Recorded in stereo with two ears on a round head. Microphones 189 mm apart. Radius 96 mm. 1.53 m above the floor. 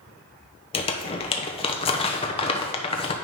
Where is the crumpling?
25° left (ahead or behind), 0.8 m.